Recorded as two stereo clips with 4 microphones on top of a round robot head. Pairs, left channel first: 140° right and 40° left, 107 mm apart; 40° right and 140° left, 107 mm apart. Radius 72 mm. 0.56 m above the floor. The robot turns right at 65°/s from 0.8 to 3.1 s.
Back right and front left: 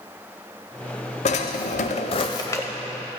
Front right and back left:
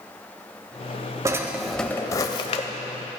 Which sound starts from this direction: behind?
A drawer, at 1.2 s.